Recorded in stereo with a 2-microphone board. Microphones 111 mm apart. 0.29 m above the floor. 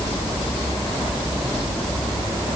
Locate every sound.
Only background noise.